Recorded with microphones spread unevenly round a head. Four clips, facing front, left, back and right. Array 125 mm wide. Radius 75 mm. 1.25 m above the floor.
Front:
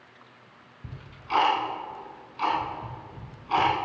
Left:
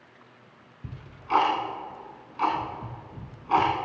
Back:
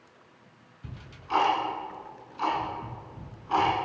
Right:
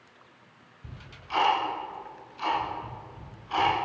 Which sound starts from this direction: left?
Ticking, at 0.8 s.